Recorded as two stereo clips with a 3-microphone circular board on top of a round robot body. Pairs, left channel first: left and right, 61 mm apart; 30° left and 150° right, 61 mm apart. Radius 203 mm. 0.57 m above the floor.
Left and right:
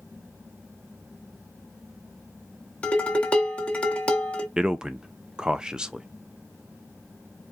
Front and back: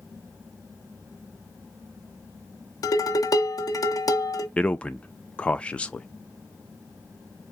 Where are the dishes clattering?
20° left, 1.1 m.